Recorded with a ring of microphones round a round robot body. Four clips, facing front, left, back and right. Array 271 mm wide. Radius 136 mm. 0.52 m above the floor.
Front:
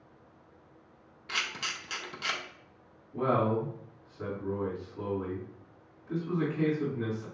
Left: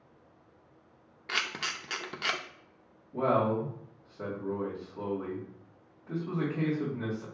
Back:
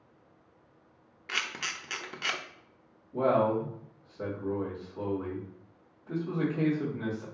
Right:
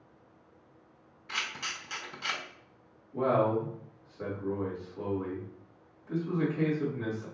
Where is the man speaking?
140° left, 2.5 m.